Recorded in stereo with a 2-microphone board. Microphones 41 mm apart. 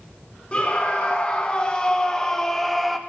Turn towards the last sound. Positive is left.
turn(degrees=0)  # may be behind; listen again after turning